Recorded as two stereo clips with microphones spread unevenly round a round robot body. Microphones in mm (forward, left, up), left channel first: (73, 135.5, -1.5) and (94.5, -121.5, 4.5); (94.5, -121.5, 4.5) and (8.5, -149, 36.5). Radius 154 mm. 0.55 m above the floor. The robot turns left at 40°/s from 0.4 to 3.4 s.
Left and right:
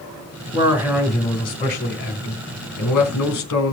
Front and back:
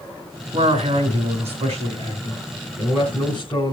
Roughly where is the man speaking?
Behind right.